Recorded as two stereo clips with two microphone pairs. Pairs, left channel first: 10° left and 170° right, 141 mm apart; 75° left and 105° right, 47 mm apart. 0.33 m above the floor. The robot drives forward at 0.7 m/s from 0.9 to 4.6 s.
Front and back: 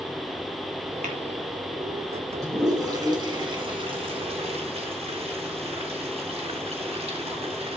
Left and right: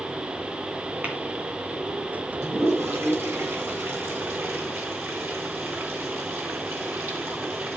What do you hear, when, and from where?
1.0 s tapping: 160° right, 2.5 m
2.4 s a toilet flushing: 105° right, 3 m; by 7.8 s 130° right, 4 m